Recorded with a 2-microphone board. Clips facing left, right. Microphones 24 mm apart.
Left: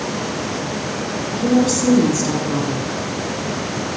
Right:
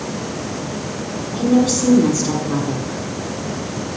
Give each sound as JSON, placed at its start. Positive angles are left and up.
{"t": 1.3, "sound": "a woman speaking", "side_deg": -10, "distance_m": 1.3}